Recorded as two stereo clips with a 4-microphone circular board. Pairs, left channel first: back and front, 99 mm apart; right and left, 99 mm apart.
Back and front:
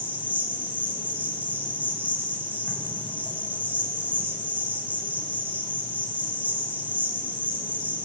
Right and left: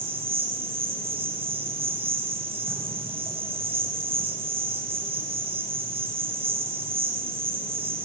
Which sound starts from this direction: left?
An insect, at 0.0 s.